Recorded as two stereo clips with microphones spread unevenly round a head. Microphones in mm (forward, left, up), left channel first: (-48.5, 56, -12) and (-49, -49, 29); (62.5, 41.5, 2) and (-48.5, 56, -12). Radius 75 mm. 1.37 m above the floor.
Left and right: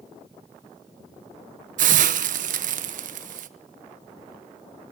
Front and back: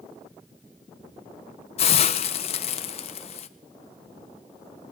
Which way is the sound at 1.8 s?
60° right.